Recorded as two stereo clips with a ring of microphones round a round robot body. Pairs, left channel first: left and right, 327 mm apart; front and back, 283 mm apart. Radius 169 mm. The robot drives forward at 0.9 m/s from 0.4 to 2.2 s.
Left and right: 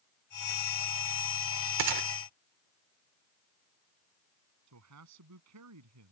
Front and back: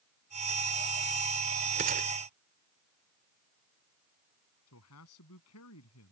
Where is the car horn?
I don't hear a car horn.